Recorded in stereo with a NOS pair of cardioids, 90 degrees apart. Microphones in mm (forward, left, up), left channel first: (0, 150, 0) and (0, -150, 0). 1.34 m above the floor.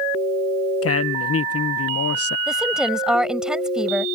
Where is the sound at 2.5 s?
Straight ahead.